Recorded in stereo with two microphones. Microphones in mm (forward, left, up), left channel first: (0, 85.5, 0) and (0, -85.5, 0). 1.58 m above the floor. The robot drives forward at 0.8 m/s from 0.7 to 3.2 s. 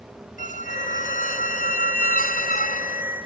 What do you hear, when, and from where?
0.4 s a squeak: 50° left (ahead or behind); by 3.0 s 55° left (ahead or behind)